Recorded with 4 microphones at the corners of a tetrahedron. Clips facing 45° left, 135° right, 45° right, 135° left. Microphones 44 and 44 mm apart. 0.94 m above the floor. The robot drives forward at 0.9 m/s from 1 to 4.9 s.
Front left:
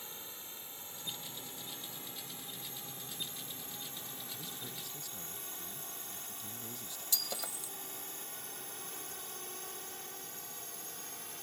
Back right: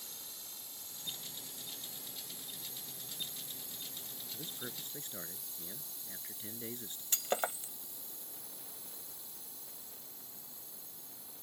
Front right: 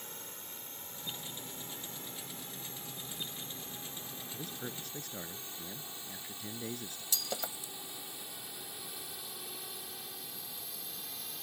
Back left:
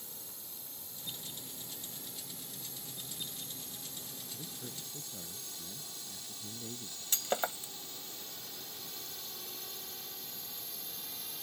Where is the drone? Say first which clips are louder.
Front left 4 dB, front right 5 dB; 10° right; by 11.4 s 40° left.